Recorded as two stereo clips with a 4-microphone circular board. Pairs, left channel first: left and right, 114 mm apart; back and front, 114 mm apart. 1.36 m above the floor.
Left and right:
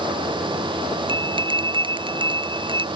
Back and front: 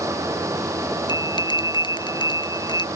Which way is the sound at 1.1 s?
130° right.